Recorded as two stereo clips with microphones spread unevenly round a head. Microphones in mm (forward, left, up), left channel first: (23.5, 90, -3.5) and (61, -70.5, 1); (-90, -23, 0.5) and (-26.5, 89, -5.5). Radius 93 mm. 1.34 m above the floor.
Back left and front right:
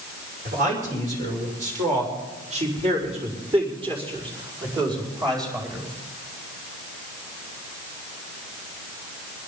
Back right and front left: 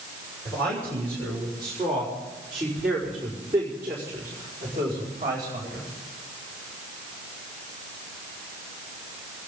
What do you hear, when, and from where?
0.5 s a man speaking: 40° right, 5.5 m; by 5.8 s 5° right, 4.5 m